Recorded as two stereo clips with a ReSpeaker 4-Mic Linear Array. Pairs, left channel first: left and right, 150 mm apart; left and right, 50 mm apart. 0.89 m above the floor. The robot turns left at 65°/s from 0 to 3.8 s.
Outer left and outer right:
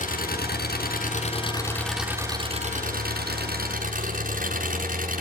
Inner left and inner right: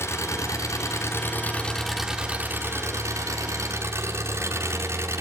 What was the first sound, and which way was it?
An engine running, 125° left.